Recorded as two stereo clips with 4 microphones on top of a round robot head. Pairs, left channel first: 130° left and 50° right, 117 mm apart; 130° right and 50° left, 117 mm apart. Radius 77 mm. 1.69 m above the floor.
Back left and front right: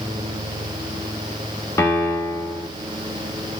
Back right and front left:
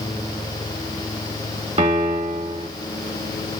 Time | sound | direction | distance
1.8 | a piano | 70° left | 1.5 m